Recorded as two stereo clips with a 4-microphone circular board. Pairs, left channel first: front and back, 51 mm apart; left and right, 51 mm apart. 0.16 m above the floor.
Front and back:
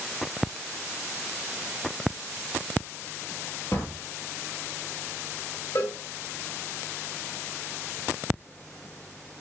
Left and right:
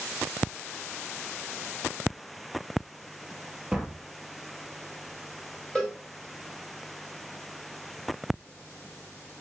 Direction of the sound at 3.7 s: 20° right.